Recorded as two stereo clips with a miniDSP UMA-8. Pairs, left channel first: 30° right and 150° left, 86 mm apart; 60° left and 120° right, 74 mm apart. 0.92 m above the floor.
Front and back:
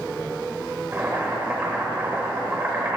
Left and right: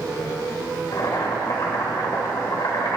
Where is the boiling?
85° left, 3.5 m.